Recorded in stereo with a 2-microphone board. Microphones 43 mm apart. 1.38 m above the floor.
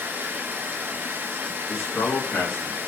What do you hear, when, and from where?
0.0 s running water: 55° right (ahead or behind), 0.8 m
1.7 s a man speaking: 85° left, 1.6 m